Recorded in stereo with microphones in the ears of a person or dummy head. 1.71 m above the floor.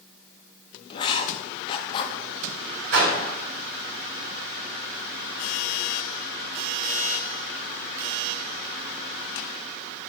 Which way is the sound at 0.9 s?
30° left (ahead or behind).